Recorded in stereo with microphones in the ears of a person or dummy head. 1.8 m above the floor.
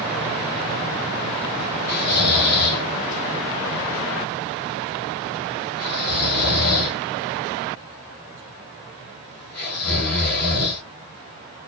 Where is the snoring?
45° left (ahead or behind), 1.2 m.